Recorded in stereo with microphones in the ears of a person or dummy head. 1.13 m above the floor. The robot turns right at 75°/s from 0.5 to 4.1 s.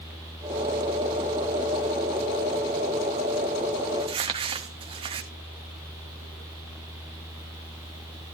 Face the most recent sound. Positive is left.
turn(degrees=-25)  # may be behind; listen again after turning